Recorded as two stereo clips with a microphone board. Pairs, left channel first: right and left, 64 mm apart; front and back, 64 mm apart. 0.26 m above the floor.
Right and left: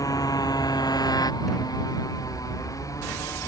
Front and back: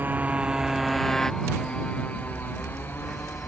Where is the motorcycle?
120° right; by 3.5 s 55° right.